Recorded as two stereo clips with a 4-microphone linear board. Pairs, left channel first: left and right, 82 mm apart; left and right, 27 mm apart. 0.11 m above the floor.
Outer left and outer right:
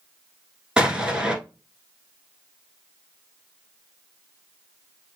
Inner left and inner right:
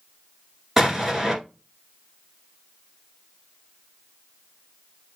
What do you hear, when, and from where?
0.8 s an explosion: 10° right (ahead or behind), 1.3 m